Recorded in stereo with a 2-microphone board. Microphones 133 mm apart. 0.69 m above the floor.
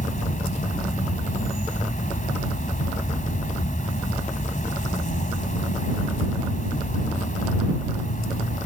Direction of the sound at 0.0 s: 75° left (ahead or behind).